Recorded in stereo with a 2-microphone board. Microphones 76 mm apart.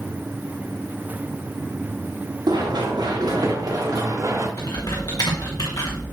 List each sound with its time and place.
2.5 s running footsteps: 75° right (ahead or behind), 5 m; by 4.5 s 40° right (ahead or behind), 4.5 m
4.6 s typing on a keyboard: 60° left (ahead or behind), 3.5 m